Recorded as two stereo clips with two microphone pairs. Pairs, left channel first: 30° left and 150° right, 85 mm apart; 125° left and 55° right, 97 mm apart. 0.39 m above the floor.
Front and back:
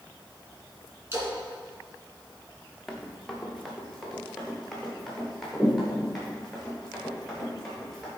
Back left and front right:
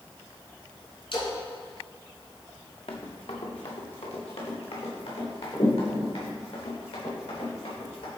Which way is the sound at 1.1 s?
155° left.